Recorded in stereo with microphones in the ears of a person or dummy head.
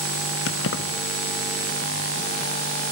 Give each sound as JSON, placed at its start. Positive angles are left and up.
{"t": 0.5, "sound": "keys jangling", "side_deg": 65, "distance_m": 1.5}